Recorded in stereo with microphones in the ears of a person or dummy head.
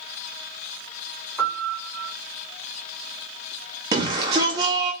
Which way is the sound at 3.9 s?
25° right (ahead or behind).